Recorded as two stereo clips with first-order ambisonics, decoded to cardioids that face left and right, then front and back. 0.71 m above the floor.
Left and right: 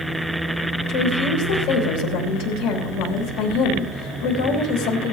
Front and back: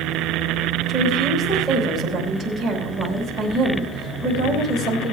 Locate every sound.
0.9 s a woman speaking: 90° left, 3.5 m